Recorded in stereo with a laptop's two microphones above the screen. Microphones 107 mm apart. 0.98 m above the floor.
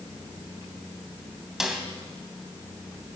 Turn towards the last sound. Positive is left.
turn(degrees=-5)  # may be behind; listen again after turning